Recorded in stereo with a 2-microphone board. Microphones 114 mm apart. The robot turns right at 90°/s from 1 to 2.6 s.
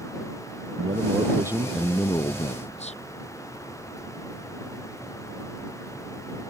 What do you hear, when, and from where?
0.8 s a man speaking: 65° right; by 3.0 s 80° left